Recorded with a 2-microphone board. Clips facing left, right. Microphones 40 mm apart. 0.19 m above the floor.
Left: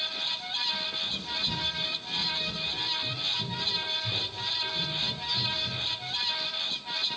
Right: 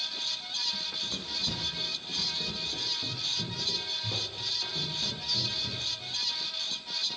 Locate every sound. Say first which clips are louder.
0.7 s running footsteps: left 3 dB; 85° right, 3.5 m; by 6.1 s 65° right (ahead or behind), 6 m